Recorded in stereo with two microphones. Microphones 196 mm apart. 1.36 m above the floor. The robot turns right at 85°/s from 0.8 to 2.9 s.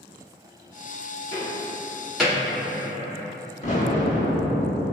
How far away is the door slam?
About 1.6 m.